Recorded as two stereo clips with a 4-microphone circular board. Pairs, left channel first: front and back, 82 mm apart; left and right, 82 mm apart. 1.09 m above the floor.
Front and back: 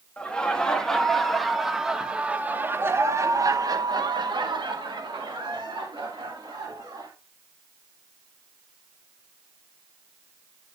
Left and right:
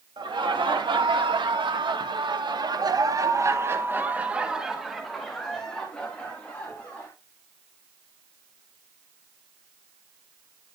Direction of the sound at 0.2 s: 75° right.